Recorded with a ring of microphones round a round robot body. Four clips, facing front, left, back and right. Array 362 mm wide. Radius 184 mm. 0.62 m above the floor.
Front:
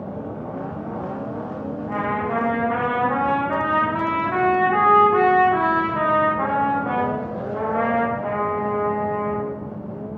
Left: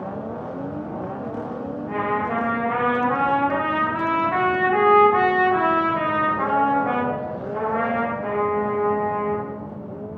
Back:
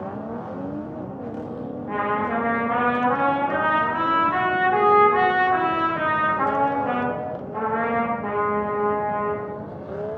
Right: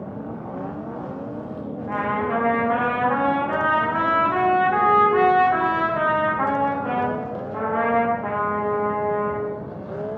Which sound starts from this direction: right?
A trumpet, at 1.9 s.